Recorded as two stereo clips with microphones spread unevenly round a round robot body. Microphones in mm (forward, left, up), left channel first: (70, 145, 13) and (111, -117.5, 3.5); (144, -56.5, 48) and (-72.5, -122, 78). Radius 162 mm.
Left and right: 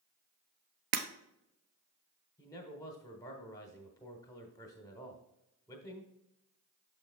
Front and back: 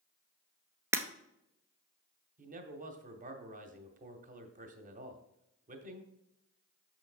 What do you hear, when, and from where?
0.9 s breaking glass: 90° right, 1.0 m
2.4 s a man speaking: 170° left, 0.9 m